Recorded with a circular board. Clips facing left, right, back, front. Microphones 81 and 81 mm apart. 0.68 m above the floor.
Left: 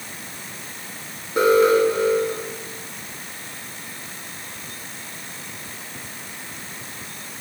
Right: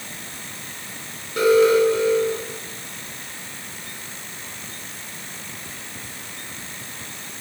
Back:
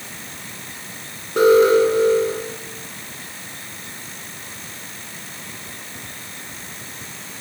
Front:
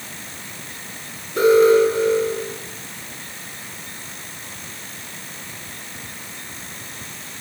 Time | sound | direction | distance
1.4 | an alarm | 155° left | 8 m